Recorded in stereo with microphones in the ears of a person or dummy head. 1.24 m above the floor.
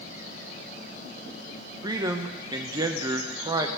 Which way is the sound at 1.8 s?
20° right (ahead or behind).